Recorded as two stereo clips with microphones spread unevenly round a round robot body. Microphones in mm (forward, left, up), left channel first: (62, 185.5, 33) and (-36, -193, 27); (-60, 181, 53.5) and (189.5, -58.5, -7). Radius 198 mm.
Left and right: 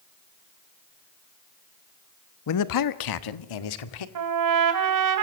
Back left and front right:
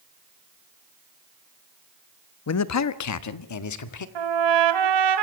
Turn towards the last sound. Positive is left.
turn(degrees=-60)